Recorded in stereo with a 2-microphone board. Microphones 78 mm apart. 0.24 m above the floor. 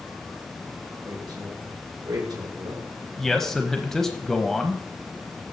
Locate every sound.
1.1 s a woman speaking: 60° right (ahead or behind), 4.5 m; by 2.9 s 55° right (ahead or behind), 3.5 m
3.2 s a man speaking: 5° left (ahead or behind), 1.0 m